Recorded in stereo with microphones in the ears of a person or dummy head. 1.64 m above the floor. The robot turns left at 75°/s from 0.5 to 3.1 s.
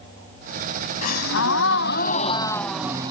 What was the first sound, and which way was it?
A gasp, 130° left.